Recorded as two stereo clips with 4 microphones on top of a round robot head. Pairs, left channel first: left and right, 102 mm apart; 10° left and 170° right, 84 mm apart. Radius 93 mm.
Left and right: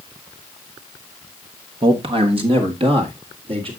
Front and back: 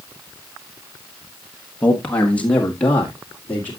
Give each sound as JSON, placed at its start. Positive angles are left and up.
{"t": 1.8, "sound": "a man speaking", "azimuth_deg": -65, "distance_m": 1.1}